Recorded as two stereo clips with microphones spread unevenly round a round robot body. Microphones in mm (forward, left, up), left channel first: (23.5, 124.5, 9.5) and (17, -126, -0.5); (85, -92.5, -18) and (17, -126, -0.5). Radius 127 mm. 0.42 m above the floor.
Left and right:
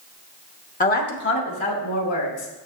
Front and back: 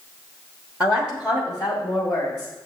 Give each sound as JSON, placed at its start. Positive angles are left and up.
{"t": 0.8, "sound": "a woman speaking", "azimuth_deg": 125, "distance_m": 1.3}